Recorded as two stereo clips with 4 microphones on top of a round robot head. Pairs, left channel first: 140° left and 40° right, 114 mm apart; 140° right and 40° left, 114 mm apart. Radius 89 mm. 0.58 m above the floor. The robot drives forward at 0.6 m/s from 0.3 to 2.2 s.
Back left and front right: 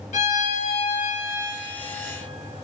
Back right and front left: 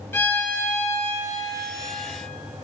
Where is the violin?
145° left, 1.8 m; by 1.6 s 155° left, 2.5 m.